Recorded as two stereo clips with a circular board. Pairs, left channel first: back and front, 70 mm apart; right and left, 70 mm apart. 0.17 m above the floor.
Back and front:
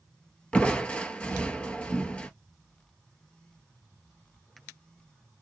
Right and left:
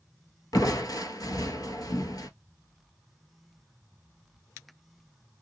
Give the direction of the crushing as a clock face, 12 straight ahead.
4 o'clock.